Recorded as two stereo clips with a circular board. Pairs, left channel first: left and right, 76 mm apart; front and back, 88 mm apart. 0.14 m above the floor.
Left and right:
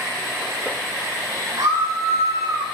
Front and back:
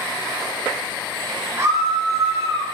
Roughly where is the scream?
Behind right.